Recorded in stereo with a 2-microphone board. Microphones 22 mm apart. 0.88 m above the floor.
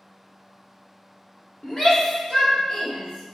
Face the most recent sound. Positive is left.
turn(degrees=50)  # may be behind; listen again after turning